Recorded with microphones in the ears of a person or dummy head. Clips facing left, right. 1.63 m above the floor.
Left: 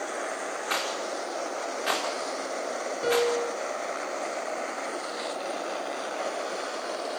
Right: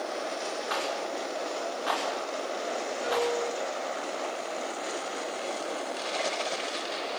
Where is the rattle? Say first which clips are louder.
Even; 35° left (ahead or behind), 5 m.